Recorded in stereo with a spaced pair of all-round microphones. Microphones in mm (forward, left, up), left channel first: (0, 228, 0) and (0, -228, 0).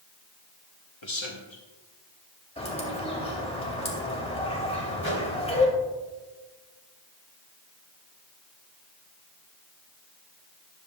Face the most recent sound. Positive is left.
turn(degrees=-75)  # may be behind; listen again after turning